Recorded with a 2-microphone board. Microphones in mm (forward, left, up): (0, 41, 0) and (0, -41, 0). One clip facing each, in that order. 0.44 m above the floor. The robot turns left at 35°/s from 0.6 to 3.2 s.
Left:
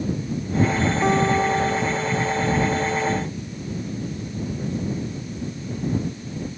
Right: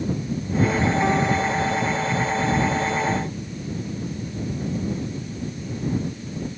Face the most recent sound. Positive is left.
turn(degrees=90)